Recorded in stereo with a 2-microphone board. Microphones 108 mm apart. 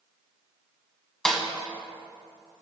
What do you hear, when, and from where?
1.2 s a snare drum: 5° left (ahead or behind), 1.4 m